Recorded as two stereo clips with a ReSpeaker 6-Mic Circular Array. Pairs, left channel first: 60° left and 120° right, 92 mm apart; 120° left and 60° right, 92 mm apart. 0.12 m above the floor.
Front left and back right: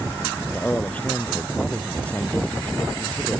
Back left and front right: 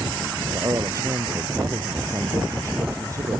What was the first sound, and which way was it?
A man speaking, 10° right.